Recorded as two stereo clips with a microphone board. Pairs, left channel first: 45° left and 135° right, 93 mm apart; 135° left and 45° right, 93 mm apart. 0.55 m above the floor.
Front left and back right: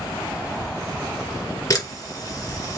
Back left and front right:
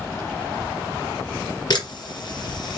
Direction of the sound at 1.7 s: 95° left.